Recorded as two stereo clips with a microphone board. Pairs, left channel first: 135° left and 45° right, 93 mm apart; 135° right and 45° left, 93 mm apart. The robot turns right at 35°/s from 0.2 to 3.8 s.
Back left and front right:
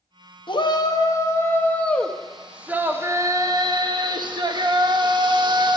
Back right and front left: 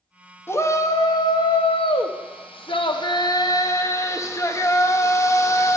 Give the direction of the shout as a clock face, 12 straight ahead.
7 o'clock.